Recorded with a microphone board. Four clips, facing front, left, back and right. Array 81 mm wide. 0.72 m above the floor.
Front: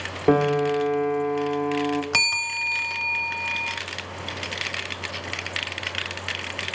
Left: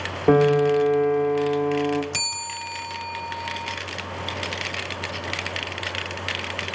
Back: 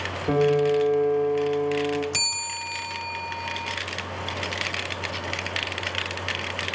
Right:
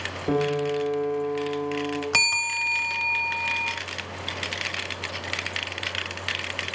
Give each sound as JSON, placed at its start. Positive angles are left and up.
{"t": 0.3, "sound": "a piano", "azimuth_deg": 45, "distance_m": 1.5}
{"t": 2.1, "sound": "a bell", "azimuth_deg": -50, "distance_m": 0.7}